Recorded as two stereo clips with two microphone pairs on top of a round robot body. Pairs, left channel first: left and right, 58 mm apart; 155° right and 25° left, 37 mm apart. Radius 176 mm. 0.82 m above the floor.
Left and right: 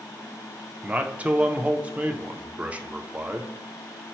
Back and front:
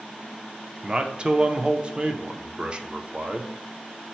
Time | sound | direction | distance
0.8 | a man speaking | 20° right | 0.6 m